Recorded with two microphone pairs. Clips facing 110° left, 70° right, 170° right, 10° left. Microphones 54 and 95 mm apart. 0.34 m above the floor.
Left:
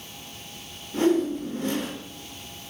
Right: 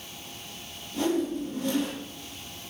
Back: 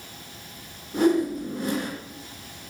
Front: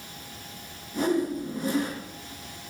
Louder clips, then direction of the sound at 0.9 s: Left 5 dB, back 4 dB; 155° left.